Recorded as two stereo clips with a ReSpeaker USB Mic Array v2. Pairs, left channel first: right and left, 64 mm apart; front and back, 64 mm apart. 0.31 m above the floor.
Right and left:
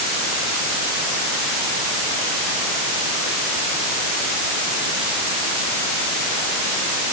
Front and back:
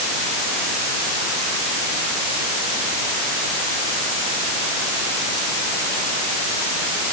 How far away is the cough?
No cough in this recording.